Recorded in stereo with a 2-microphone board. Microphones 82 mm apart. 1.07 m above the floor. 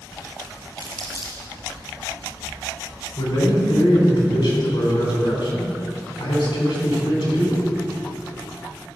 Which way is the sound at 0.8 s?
55° left (ahead or behind).